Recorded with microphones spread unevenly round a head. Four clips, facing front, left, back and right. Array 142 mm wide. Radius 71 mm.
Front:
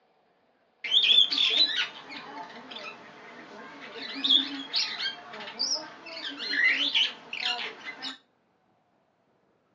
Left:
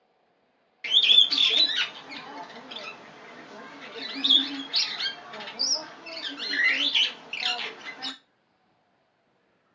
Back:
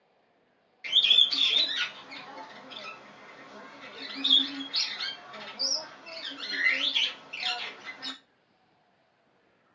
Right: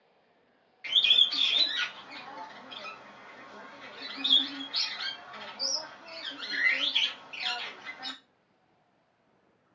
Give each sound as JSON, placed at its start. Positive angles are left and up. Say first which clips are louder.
{"t": 0.8, "sound": "a bird", "louder": "left 4 dB, front 1 dB", "azimuth_deg": 65, "distance_m": 0.6}